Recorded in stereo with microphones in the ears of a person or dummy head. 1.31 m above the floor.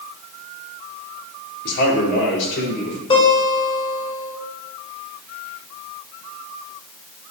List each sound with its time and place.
1.6 s a man speaking: 60° left (ahead or behind), 3.5 m; by 3.0 s 70° left (ahead or behind), 5 m
3.1 s a guitar: 30° left (ahead or behind), 4 m